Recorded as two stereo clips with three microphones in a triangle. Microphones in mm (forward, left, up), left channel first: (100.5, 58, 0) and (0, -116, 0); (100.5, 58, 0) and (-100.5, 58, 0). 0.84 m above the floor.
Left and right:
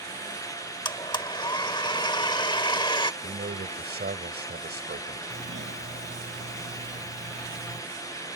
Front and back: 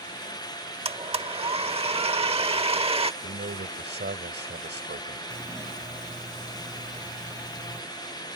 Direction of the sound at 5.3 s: 105° right.